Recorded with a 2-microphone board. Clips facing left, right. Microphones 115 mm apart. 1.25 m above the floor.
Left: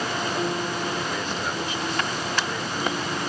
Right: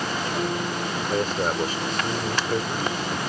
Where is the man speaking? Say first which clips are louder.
Right 5 dB; 40° right (ahead or behind).